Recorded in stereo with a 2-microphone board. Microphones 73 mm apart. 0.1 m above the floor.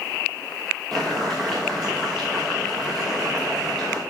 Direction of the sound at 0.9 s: 5° left (ahead or behind).